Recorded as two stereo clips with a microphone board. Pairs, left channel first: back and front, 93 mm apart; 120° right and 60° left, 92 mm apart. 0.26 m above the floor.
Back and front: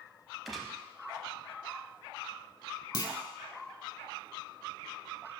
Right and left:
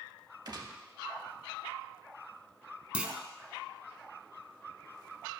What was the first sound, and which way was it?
A gunshot, 90° left.